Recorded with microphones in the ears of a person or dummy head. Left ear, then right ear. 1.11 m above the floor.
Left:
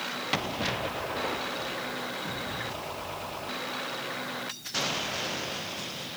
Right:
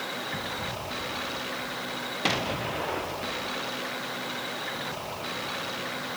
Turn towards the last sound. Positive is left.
No sound to turn to.